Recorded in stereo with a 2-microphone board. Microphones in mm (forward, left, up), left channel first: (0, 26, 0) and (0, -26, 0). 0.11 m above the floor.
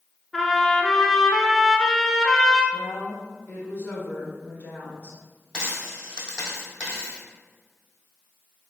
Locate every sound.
0.3 s a trumpet: centre (ahead or behind), 0.6 m
2.7 s a woman speaking: 40° left (ahead or behind), 1.3 m
5.5 s a dropped coin: 15° right (ahead or behind), 1.9 m